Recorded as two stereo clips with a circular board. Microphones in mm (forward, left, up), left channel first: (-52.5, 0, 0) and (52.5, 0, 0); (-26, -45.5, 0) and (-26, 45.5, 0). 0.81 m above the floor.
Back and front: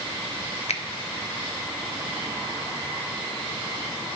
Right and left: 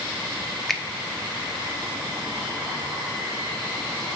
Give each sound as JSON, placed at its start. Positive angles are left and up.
{"t": 0.7, "sound": "a finger snap", "azimuth_deg": -175, "distance_m": 0.8}